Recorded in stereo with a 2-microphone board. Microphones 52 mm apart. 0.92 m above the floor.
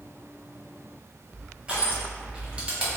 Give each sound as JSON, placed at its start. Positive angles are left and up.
{"t": 1.7, "sound": "crushing", "side_deg": -25, "distance_m": 0.7}